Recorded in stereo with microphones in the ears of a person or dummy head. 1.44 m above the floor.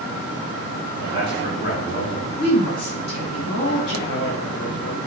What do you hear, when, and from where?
1.0 s a man speaking: 55° left (ahead or behind), 4 m
2.4 s a woman speaking: 55° left (ahead or behind), 3 m
4.1 s a man speaking: 55° left (ahead or behind), 1.3 m